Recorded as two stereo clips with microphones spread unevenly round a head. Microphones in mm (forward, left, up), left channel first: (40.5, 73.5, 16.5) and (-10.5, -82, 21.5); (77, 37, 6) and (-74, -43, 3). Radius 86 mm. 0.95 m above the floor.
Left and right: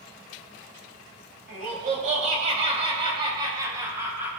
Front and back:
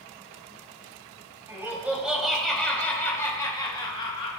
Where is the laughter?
75° right, 4.5 m; by 4.4 s 30° right, 5 m.